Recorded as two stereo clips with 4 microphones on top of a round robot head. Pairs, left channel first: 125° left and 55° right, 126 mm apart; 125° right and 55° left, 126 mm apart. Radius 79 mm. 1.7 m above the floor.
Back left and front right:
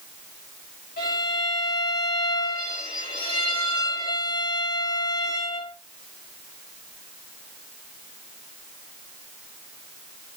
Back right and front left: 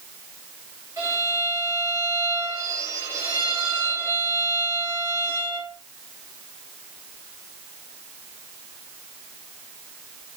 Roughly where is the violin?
Behind left.